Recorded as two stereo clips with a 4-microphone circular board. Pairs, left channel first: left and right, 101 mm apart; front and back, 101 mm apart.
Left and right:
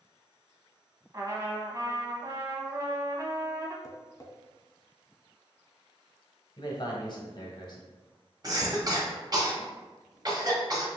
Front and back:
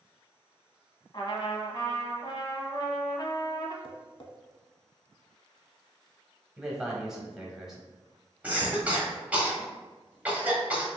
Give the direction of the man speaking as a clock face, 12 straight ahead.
9 o'clock.